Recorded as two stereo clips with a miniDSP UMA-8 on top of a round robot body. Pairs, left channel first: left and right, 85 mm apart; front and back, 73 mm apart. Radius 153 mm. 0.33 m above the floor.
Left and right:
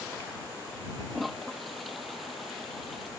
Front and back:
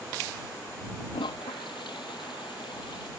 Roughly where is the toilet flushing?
Ahead.